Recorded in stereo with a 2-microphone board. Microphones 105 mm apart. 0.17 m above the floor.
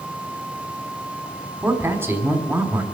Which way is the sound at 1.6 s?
20° right (ahead or behind).